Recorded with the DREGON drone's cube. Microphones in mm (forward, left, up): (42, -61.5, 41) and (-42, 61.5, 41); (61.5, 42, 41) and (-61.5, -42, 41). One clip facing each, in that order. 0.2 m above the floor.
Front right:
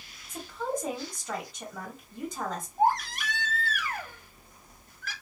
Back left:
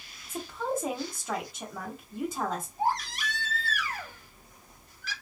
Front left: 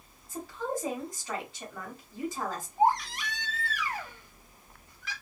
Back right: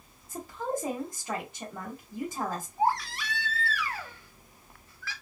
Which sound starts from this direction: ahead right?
A baby crying, at 2.8 s.